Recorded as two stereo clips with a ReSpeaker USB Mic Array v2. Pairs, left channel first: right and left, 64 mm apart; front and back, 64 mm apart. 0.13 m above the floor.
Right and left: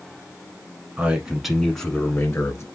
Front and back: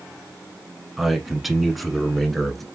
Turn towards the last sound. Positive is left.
turn(degrees=-90)